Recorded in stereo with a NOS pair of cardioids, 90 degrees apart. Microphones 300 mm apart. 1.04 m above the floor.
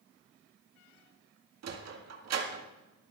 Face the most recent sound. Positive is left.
turn(degrees=-60)